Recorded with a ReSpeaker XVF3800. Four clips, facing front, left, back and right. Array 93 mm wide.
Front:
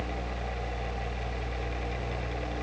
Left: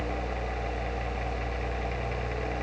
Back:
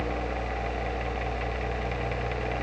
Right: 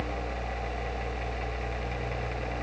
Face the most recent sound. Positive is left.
No sound to turn to.